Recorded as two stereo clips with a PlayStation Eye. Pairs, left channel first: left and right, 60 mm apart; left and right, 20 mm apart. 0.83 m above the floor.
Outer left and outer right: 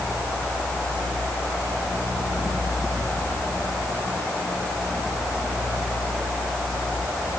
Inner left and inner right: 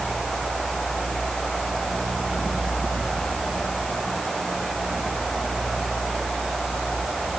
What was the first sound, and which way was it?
Only background noise.